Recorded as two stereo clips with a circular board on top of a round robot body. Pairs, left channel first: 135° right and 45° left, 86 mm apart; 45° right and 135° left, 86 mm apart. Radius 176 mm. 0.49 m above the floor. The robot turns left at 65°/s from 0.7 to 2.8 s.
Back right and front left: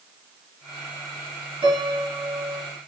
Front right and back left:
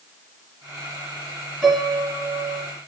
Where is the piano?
35° left, 3.5 m; by 2.7 s 35° right, 3.5 m.